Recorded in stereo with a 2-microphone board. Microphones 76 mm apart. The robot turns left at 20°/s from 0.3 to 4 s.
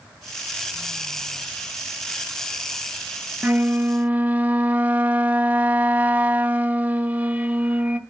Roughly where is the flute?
Right.